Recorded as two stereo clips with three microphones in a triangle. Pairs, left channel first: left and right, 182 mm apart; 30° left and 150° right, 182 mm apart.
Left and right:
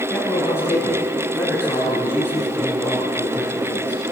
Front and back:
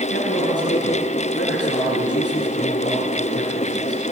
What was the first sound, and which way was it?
A man speaking, 15° left.